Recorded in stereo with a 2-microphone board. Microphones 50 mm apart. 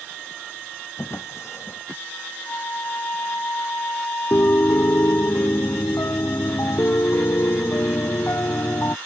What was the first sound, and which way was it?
A drawer, 65° left (ahead or behind).